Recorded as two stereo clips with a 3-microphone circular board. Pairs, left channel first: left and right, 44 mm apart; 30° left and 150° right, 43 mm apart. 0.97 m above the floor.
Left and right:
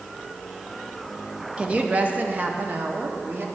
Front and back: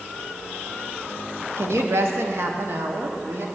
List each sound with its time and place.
1.6 s a woman speaking: 155° right, 1.2 m; by 3.5 s 125° right, 2 m